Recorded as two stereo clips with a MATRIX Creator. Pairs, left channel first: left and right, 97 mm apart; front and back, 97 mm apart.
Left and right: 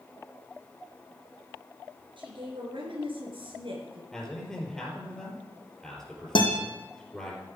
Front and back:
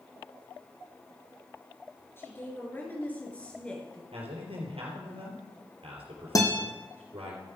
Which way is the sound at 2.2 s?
65° right.